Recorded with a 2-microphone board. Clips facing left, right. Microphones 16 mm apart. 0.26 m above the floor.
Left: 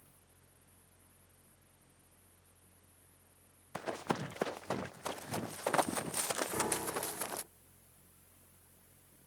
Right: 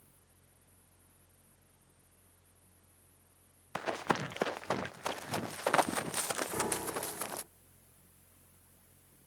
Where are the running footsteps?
65° right (ahead or behind); by 7.4 s 30° right (ahead or behind).